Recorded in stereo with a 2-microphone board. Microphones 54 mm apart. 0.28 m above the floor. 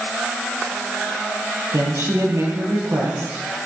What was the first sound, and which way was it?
A woman speaking, 70° right (ahead or behind).